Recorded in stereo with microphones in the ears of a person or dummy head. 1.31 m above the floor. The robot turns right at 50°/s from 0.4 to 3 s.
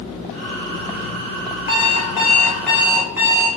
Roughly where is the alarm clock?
Behind left.